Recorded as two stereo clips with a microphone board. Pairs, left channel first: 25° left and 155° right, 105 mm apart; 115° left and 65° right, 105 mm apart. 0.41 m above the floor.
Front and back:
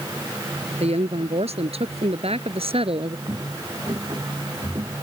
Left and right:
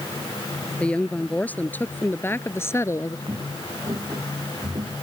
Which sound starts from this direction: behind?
A woman speaking, at 0.8 s.